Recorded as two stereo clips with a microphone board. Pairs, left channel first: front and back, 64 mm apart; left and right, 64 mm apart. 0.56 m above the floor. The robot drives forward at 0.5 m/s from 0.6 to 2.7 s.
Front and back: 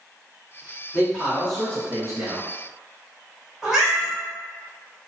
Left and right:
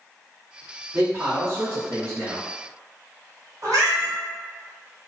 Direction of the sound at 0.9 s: 70° right.